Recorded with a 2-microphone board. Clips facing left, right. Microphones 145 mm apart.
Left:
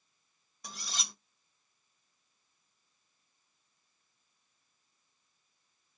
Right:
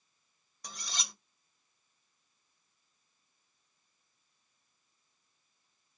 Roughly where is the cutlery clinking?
Centre.